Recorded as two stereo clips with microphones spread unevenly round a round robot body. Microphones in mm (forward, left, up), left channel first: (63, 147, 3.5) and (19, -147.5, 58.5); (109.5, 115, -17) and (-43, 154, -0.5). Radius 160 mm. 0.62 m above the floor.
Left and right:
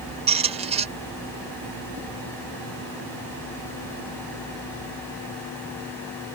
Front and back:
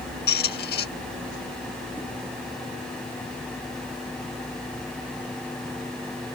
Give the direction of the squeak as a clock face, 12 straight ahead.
1 o'clock.